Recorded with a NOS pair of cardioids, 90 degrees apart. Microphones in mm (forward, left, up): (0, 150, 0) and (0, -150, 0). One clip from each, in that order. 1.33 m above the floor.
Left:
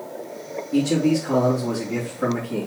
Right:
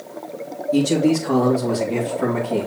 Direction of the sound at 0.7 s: 25° right.